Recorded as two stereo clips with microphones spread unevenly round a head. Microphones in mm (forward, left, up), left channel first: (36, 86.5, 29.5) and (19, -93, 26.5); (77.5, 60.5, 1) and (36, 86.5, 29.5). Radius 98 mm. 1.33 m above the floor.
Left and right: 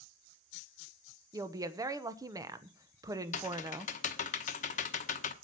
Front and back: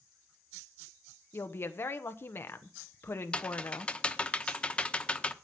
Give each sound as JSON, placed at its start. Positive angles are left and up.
{"t": 1.3, "sound": "a woman speaking", "azimuth_deg": -25, "distance_m": 1.1}
{"t": 3.3, "sound": "typing on a keyboard", "azimuth_deg": 65, "distance_m": 0.9}